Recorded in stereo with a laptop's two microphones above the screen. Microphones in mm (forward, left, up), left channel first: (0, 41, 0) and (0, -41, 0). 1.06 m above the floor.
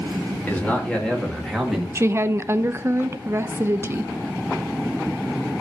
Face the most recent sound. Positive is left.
turn(degrees=-30)  # may be behind; listen again after turning